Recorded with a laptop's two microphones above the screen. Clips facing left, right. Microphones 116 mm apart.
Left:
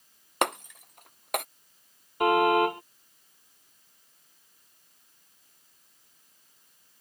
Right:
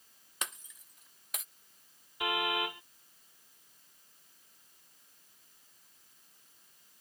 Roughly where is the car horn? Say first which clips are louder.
Left 13 dB; left.